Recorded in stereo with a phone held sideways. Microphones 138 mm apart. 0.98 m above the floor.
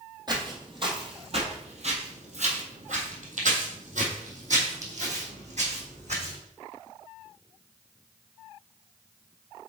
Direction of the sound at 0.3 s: 30° right (ahead or behind).